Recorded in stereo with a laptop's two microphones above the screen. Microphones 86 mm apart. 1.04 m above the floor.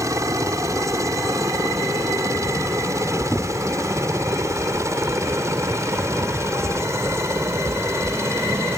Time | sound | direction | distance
0.0 | a helicopter | 35° right (ahead or behind) | ?